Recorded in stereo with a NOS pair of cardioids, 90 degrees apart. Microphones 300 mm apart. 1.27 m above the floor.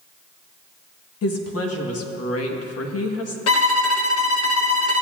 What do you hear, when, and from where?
1.2 s a woman speaking: 55° left, 1.3 m
3.5 s a violin: 55° left, 0.8 m